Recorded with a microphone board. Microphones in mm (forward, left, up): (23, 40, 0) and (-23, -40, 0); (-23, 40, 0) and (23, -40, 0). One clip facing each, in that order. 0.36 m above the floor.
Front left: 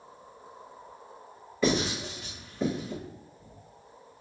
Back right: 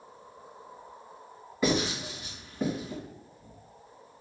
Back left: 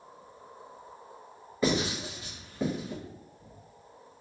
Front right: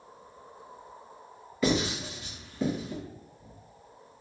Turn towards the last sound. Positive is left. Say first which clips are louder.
# front left 1 dB, front right 1 dB
turn(degrees=165)